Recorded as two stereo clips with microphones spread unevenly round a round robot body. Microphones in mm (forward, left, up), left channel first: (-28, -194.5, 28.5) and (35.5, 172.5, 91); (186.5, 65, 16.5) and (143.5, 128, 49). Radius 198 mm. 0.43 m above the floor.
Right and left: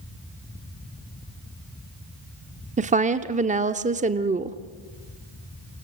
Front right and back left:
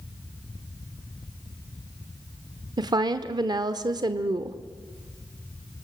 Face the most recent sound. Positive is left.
turn(degrees=155)